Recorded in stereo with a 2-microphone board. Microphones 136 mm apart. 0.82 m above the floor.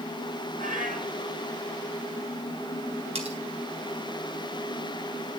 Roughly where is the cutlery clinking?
Right.